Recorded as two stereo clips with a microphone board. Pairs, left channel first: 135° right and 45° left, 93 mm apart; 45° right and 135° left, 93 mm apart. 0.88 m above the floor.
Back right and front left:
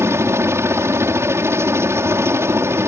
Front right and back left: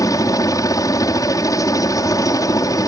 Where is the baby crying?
I don't hear a baby crying.